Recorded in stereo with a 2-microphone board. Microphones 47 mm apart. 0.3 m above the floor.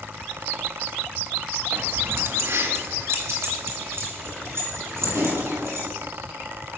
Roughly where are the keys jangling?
Right.